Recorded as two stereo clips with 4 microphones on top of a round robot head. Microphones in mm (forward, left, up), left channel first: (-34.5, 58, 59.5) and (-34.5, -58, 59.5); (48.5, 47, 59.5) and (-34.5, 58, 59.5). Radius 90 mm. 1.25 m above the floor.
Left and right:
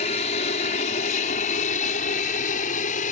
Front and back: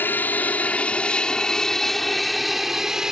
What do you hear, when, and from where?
0.0 s an aircraft: 60° left; by 3.1 s 90° left